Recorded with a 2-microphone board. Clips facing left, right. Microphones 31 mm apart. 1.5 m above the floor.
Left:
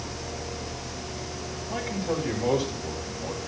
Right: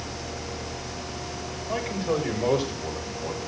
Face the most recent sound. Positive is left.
turn(degrees=-60)  # may be behind; listen again after turning